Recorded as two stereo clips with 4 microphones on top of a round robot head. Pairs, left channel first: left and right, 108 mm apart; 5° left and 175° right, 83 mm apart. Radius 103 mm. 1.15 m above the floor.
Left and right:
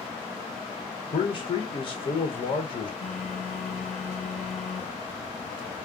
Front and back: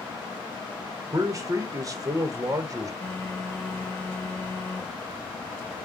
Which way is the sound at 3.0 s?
75° left.